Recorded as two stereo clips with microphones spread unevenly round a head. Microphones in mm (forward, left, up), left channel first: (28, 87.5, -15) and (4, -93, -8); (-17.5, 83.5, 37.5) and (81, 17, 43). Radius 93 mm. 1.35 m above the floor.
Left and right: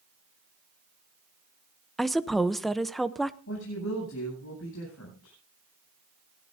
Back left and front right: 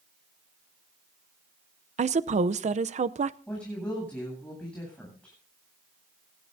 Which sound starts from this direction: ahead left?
A woman speaking, at 3.5 s.